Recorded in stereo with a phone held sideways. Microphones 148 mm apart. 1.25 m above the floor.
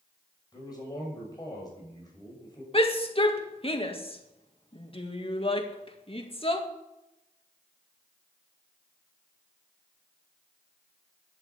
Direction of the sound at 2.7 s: 40° left (ahead or behind).